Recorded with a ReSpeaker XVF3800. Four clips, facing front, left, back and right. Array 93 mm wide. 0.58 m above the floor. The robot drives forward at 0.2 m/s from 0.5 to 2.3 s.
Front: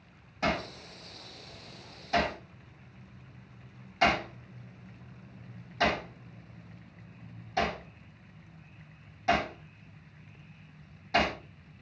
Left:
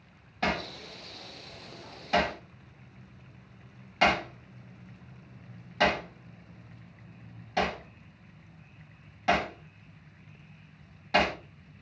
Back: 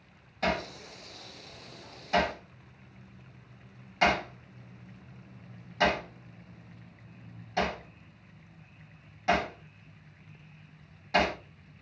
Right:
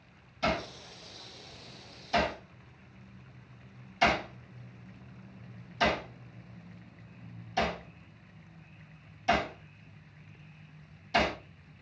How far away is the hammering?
About 1.2 m.